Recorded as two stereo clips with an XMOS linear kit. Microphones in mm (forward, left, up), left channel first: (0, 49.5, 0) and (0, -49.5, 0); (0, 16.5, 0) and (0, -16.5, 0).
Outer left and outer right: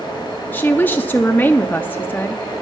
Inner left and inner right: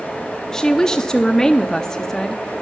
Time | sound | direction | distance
0.5 | a woman speaking | 20° left (ahead or behind) | 0.6 m